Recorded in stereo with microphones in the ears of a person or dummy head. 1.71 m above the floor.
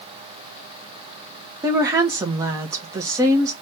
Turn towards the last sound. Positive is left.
turn(degrees=-20)  # may be behind; listen again after turning